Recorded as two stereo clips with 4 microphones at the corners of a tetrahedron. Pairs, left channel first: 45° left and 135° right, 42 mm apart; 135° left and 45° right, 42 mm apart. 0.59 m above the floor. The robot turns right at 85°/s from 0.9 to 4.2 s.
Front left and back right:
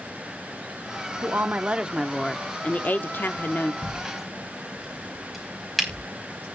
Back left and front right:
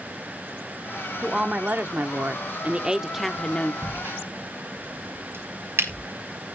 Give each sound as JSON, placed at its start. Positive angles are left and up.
{"t": 1.2, "sound": "a woman speaking", "azimuth_deg": -125, "distance_m": 0.9}
{"t": 3.8, "sound": "a crack", "azimuth_deg": -75, "distance_m": 4.0}